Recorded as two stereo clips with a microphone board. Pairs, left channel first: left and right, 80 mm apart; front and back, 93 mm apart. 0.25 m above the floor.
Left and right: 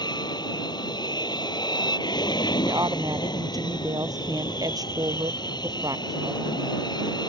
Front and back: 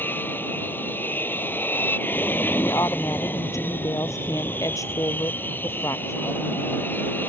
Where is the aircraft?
70° left.